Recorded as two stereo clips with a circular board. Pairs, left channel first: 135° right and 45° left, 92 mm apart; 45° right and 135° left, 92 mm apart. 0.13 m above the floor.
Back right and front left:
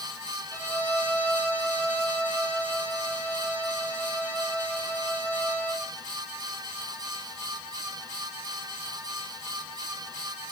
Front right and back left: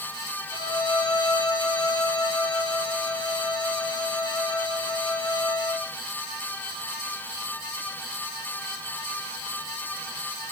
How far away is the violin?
About 2.0 m.